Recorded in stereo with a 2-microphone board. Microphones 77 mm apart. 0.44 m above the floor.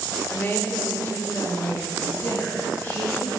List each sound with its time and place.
0.3 s a woman speaking: 25° left (ahead or behind), 0.8 m